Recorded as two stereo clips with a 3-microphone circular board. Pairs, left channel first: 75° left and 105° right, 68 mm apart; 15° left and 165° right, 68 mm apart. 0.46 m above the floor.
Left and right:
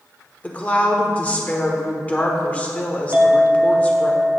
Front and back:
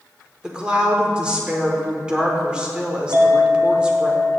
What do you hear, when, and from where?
0.4 s a woman speaking: 130° left, 1.0 m
3.1 s a clink: 155° right, 1.1 m